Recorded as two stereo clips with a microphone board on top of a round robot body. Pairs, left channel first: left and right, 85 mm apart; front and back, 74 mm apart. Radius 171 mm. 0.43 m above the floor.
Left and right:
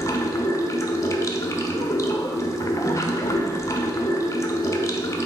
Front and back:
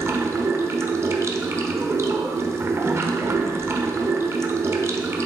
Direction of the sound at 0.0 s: 135° left.